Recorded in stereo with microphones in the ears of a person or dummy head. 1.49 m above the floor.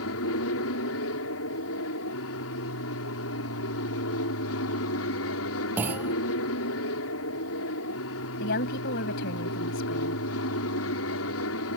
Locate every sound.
0.0 s an aircraft: 70° left (ahead or behind)
5.8 s a clunk: 10° right (ahead or behind)
8.4 s a woman speaking: 50° left (ahead or behind)